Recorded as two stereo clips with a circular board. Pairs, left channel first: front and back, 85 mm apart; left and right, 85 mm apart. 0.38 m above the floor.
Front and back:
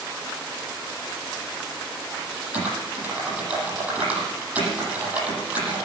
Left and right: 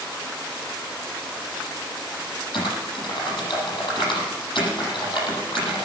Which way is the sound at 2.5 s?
110° left.